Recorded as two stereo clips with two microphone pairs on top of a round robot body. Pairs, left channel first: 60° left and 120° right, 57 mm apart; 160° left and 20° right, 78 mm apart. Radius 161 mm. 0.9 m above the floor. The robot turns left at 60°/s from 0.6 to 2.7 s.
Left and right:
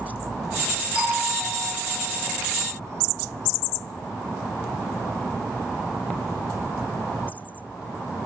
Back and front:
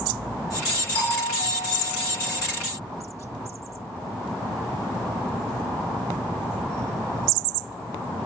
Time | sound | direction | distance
0.9 | a doorbell | 165° left | 8 m